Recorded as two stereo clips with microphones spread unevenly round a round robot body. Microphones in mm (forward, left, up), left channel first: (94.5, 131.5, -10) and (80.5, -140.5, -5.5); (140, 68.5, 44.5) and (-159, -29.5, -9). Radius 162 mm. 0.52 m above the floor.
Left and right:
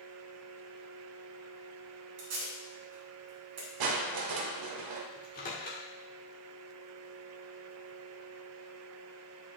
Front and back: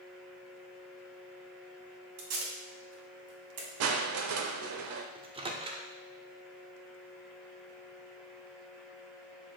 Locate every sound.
2.2 s tape being pulled: 135° right, 1.9 m
3.8 s crushing: 115° right, 0.6 m
5.2 s a microwave: 140° left, 0.8 m